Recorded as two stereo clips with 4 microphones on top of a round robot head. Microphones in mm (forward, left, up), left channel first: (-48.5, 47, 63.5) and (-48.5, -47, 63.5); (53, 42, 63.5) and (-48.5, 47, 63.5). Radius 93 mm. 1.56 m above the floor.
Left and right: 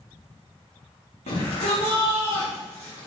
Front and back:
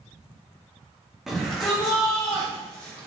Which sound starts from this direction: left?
A shout, at 1.3 s.